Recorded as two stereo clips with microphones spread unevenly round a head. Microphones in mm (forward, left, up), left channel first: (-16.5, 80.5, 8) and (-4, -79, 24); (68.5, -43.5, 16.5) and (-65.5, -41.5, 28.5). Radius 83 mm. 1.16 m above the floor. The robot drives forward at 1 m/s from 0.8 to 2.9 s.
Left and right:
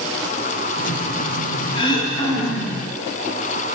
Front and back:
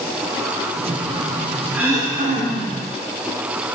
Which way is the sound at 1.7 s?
115° left.